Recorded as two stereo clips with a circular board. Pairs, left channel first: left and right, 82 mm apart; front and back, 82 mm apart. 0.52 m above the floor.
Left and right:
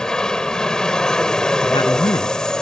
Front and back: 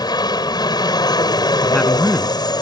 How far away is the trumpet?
No trumpet in this recording.